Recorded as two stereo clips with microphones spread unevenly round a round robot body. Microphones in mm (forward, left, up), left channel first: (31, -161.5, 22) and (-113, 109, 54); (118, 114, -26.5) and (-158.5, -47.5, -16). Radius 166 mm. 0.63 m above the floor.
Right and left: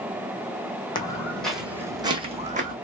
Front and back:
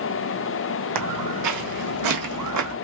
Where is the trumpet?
I don't hear a trumpet.